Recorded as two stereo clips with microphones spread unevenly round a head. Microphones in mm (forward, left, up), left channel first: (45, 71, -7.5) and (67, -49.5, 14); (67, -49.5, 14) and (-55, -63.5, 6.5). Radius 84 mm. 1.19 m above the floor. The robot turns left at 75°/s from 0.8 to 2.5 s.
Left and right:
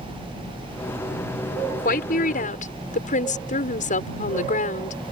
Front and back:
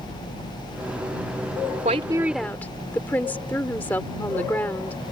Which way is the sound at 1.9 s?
135° left.